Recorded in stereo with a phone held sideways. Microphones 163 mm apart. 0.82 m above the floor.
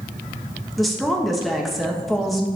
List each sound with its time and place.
0.8 s a woman speaking: centre (ahead or behind), 0.8 m